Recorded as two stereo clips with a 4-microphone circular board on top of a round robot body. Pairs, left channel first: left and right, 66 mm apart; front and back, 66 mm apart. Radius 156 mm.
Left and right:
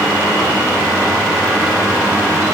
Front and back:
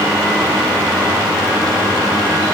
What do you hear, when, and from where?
Only background noise.